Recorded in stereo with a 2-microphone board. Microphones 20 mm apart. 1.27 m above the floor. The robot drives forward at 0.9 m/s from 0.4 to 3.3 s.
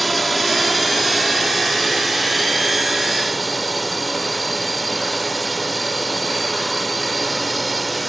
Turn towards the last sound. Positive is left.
turn(degrees=5)  # may be behind; listen again after turning